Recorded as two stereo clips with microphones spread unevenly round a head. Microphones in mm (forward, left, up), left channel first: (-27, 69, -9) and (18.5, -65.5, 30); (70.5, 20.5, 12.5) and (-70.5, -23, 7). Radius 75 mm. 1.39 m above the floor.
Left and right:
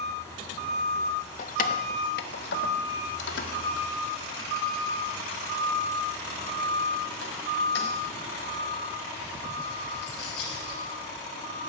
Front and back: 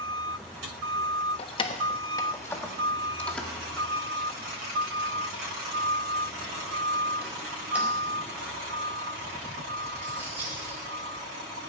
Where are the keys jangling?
65° left, 1.0 m; by 10.8 s 120° left, 6 m.